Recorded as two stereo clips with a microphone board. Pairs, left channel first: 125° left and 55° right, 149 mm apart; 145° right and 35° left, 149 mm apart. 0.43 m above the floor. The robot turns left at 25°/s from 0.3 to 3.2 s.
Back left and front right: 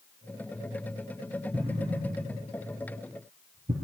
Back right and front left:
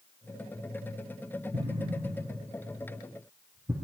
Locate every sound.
1.5 s an explosion: 5° left, 3.5 m; by 3.7 s 35° right, 3.5 m